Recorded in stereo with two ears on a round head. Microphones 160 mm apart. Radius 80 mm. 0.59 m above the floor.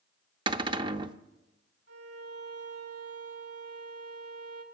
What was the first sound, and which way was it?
A cupboard door, 25° right (ahead or behind).